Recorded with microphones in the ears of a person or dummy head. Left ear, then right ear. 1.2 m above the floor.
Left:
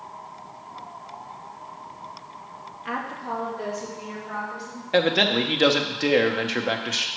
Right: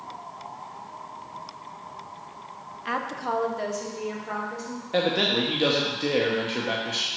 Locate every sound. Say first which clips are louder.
2.9 s a woman speaking: right 2 dB; 5° right (ahead or behind), 0.6 m; by 4.8 s 60° right (ahead or behind), 2.5 m
4.9 s a man speaking: left 3 dB; 40° left (ahead or behind), 0.9 m